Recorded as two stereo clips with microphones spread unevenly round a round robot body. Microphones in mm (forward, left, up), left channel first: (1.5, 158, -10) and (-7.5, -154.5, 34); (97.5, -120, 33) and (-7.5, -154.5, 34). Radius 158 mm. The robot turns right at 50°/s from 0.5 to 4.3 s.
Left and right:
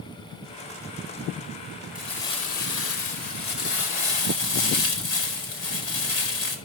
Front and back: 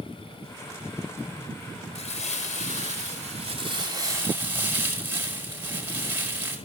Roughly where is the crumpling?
Ahead.